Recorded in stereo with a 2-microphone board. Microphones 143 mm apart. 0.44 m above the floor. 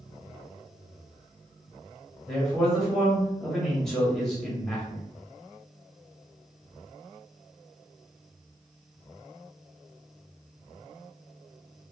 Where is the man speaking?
5° left (ahead or behind), 1.3 m.